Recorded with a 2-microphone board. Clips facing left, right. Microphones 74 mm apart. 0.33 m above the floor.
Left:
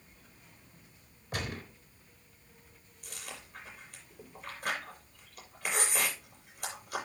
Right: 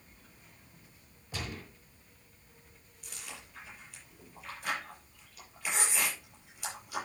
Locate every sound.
1.3 s a gunshot: 55° left (ahead or behind), 3.5 m
3.0 s chewing: 50° left (ahead or behind), 7.5 m